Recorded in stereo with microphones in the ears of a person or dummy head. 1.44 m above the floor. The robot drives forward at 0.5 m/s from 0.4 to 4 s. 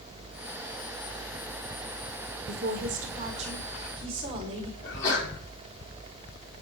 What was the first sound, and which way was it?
A woman speaking, 50° right (ahead or behind).